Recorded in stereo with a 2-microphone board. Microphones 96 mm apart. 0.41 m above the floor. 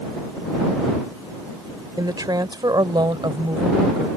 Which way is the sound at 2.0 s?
40° right (ahead or behind).